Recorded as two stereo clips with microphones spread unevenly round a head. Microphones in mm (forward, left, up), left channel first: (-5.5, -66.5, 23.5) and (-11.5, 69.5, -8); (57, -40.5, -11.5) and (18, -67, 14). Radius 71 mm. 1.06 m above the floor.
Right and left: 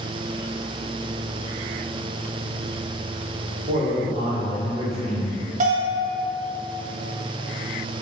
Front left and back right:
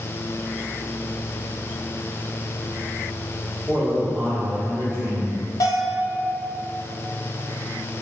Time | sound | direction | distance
3.7 | a man speaking | 125° left | 1.2 m
5.6 | a bell | 55° left | 0.9 m